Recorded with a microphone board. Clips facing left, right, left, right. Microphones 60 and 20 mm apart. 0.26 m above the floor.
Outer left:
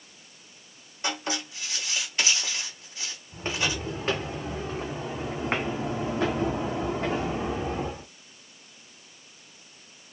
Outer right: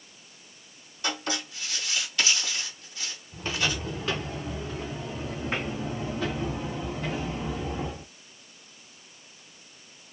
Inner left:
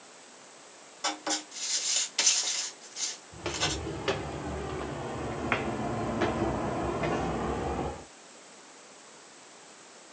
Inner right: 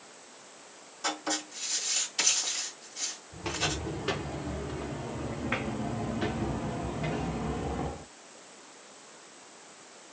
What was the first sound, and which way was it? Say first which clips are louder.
Writing: even, even; 25° left (ahead or behind).